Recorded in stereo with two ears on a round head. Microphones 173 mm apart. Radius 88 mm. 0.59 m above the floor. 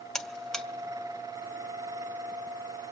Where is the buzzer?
5° left (ahead or behind), 1.3 m.